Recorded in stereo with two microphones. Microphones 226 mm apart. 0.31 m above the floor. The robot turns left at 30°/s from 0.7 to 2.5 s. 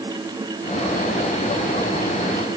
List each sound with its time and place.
Only background noise.